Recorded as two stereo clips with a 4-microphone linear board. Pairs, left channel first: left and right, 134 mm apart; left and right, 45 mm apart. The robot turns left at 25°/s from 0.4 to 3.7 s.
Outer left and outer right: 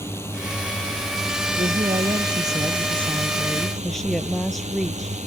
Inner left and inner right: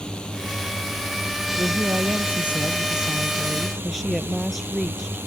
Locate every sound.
0.0 s a drone: 20° left; by 5.3 s 65° right
1.6 s a woman speaking: 130° right; by 5.2 s straight behind